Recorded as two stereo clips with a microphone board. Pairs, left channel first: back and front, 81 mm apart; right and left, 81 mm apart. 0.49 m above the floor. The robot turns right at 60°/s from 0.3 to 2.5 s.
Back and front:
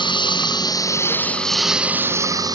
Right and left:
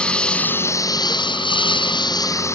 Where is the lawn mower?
170° right; by 2.5 s 35° right.